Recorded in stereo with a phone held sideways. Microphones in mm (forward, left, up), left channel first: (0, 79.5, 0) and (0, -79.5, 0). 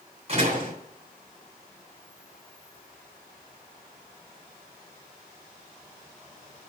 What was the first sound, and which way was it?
A door slam, 45° right (ahead or behind).